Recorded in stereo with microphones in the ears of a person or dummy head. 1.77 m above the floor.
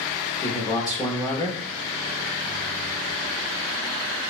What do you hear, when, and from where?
0.4 s a man speaking: 15° left (ahead or behind), 0.7 m